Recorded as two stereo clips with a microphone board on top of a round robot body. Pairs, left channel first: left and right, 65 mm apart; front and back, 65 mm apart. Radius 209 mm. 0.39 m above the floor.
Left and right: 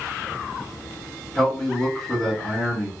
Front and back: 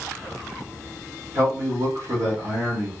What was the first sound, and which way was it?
A man speaking, 170° left.